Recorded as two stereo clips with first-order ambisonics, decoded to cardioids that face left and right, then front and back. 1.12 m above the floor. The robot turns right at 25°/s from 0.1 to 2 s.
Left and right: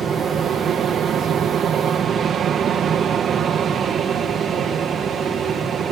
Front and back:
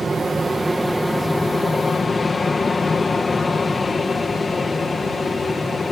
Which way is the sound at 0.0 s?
115° right.